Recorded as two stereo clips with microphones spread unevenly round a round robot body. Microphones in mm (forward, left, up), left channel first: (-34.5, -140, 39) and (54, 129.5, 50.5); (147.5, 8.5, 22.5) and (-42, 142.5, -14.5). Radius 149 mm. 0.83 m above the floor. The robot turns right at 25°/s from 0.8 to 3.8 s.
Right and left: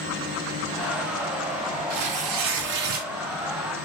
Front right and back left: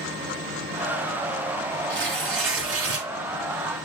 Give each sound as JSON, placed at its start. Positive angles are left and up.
{"t": 1.9, "sound": "tearing paper", "azimuth_deg": 105, "distance_m": 3.0}